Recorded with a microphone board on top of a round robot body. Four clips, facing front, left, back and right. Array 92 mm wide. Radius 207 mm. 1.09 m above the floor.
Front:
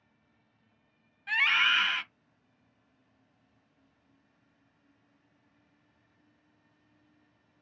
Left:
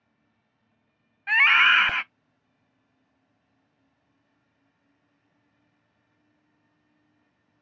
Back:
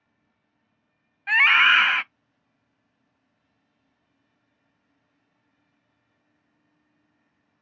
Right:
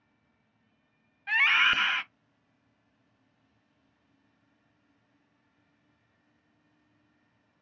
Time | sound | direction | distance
1.3 | a scream | 145° left | 0.6 m